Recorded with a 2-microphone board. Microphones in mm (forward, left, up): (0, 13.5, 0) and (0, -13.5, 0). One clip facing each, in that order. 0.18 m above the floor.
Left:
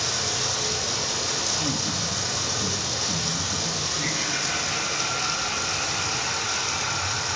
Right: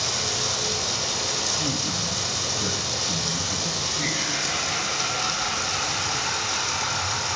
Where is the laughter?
20° right (ahead or behind), 1.1 m.